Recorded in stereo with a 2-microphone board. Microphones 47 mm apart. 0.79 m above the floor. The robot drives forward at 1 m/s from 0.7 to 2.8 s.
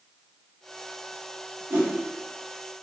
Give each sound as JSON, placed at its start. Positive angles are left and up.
{"t": 1.7, "sound": "a whoosh", "side_deg": -70, "distance_m": 2.5}